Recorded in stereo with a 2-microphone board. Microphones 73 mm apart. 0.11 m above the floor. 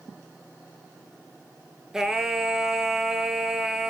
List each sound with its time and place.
1.9 s singing: 5° right (ahead or behind), 1.2 m